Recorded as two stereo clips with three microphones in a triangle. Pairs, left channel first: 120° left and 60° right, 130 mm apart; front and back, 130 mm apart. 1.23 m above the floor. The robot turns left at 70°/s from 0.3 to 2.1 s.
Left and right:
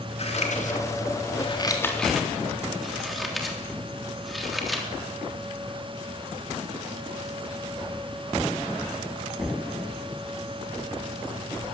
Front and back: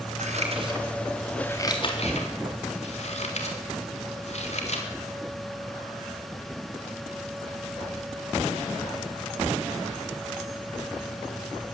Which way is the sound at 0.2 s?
155° left.